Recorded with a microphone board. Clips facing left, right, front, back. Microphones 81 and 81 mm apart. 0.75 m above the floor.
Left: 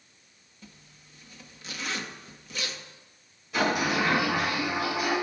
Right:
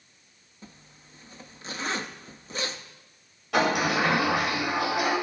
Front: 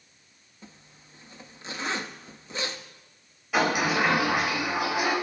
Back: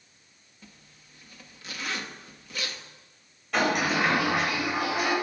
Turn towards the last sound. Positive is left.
turn(degrees=-85)